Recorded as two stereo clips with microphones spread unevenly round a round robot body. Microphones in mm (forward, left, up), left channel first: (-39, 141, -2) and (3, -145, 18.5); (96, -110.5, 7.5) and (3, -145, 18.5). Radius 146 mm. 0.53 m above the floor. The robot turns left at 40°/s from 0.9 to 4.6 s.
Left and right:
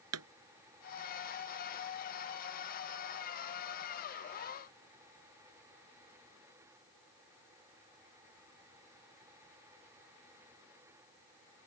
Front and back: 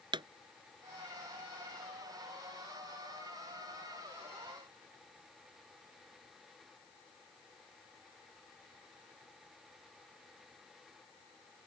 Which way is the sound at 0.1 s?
120° right.